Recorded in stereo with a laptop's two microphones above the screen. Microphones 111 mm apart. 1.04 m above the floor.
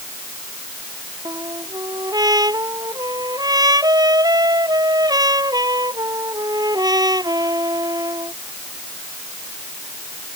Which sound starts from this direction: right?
A trumpet, at 1.2 s.